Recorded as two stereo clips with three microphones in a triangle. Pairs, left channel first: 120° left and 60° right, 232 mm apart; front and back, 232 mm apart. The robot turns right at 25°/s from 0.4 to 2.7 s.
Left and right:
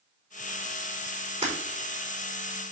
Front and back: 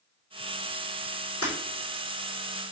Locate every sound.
1.4 s breaking glass: 5° left, 5 m; by 1.5 s 10° left, 5 m